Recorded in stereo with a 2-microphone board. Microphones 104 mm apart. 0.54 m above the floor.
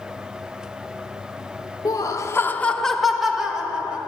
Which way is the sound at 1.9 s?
35° left (ahead or behind).